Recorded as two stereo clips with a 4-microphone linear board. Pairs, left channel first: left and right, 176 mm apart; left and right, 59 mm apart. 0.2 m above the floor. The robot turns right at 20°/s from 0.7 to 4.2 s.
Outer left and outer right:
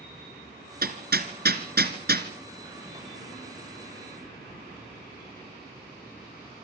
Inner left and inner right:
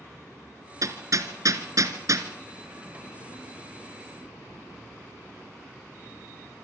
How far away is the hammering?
About 2 m.